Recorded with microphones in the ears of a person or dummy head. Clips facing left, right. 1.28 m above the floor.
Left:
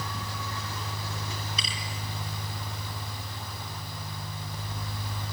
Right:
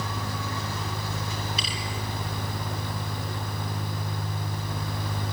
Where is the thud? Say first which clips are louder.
Right 4 dB; 5° right (ahead or behind), 5 m.